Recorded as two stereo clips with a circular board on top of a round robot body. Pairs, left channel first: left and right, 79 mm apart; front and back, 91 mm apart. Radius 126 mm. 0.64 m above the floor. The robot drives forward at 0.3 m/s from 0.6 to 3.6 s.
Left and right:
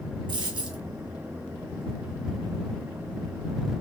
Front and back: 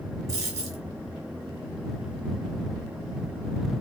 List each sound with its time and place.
0.3 s a dropped coin: 125° right, 1.0 m